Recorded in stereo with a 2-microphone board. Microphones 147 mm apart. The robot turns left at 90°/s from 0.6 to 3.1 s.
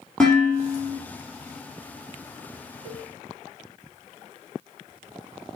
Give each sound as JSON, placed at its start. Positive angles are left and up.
{"t": 0.2, "sound": "dishes clattering", "azimuth_deg": 5, "distance_m": 4.5}
{"t": 2.9, "sound": "a cowbell", "side_deg": -35, "distance_m": 1.6}